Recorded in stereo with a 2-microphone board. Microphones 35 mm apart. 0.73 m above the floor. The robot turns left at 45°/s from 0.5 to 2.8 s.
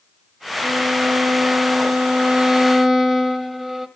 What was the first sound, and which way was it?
A violin, 85° right.